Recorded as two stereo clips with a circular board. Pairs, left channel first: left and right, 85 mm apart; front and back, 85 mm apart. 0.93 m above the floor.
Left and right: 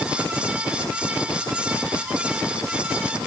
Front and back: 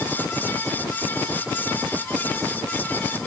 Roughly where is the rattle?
No rattle in this recording.